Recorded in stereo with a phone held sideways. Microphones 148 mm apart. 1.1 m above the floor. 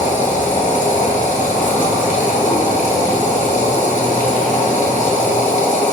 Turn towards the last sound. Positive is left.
turn(degrees=60)  # may be behind; listen again after turning